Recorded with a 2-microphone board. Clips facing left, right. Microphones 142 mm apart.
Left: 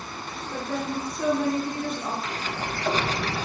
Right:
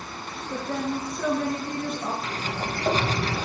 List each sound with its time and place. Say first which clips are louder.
0.5 s a woman speaking: right 1 dB; 50° right (ahead or behind), 2.5 m
2.2 s a sliding door: right 1 dB; 35° right (ahead or behind), 0.7 m